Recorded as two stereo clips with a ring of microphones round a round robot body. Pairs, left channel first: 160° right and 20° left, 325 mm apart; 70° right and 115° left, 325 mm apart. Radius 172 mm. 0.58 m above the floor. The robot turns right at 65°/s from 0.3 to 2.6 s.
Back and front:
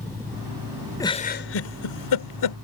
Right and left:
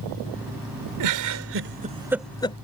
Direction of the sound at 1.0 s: 120° left.